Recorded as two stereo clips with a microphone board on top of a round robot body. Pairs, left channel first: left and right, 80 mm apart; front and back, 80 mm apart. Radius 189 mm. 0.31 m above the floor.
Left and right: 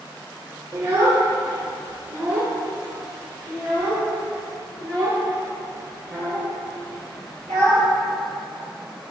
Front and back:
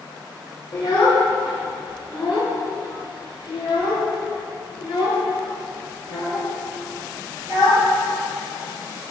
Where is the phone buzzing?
I don't hear a phone buzzing.